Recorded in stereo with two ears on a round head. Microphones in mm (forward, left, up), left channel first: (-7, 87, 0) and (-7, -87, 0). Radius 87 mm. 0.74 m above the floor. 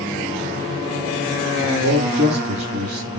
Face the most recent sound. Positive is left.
turn(degrees=-50)  # may be behind; listen again after turning